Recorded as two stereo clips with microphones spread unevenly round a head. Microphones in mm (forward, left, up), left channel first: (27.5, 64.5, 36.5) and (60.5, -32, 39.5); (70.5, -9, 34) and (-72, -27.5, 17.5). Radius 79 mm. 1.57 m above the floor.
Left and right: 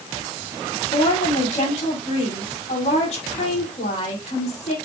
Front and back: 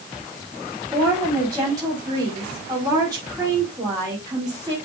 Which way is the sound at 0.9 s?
120° left.